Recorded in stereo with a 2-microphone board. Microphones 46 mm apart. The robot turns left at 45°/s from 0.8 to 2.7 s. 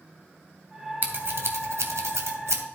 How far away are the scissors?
About 1.8 m.